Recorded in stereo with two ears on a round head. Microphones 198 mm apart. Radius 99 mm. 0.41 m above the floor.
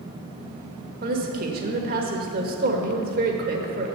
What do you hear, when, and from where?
1.0 s a woman speaking: 40° right (ahead or behind), 1.2 m